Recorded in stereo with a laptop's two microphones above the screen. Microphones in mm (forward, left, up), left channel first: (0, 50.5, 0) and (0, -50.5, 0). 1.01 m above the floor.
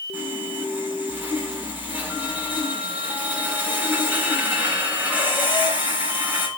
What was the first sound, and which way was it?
Sawing, 20° right (ahead or behind).